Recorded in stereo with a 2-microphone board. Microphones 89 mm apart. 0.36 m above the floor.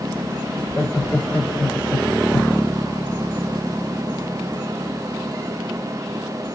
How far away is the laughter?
About 1.3 m.